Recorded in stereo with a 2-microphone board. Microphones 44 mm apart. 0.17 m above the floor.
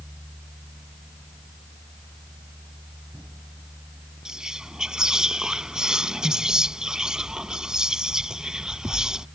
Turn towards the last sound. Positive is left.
turn(degrees=-20)  # may be behind; listen again after turning